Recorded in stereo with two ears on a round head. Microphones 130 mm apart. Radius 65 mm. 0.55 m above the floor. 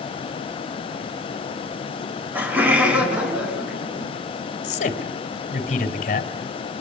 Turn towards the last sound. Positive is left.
turn(degrees=50)  # may be behind; listen again after turning